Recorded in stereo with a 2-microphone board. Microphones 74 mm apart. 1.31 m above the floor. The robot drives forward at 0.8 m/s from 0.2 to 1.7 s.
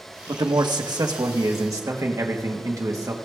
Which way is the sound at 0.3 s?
75° right (ahead or behind).